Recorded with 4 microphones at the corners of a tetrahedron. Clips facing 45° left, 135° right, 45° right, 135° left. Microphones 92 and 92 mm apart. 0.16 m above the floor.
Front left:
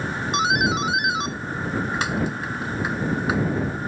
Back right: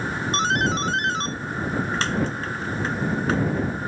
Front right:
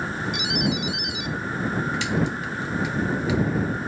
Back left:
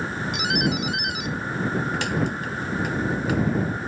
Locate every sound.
0.3 s a doorbell: 125° left